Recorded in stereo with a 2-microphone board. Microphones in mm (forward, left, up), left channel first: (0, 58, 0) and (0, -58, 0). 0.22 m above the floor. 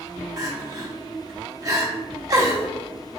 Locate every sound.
0.4 s crying: 35° right (ahead or behind), 0.7 m